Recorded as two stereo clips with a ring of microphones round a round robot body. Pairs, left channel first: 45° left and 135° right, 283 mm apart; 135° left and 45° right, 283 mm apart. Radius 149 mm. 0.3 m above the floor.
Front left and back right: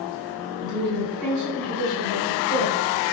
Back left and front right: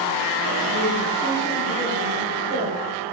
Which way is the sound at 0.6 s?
150° right.